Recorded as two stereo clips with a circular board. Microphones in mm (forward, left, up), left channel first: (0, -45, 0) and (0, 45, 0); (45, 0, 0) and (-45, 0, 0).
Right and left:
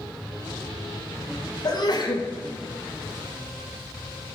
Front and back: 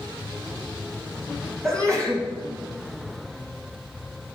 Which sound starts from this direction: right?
A sneeze, at 1.6 s.